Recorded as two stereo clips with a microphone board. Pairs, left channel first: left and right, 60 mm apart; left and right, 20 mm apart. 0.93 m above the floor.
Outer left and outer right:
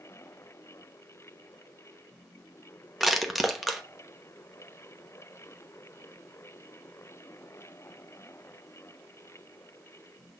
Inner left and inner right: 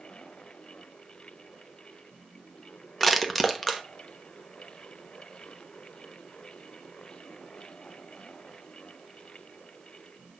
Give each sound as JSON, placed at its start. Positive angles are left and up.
{"t": 3.0, "sound": "crushing", "side_deg": 0, "distance_m": 1.0}